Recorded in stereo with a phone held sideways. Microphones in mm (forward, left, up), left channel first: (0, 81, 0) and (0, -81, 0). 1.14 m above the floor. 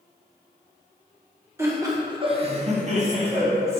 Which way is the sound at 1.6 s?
15° right (ahead or behind).